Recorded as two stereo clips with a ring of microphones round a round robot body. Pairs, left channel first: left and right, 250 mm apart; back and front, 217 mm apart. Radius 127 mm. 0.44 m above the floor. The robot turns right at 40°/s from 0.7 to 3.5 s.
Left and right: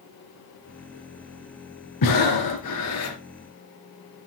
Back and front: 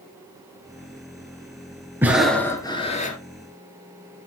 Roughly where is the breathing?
Left.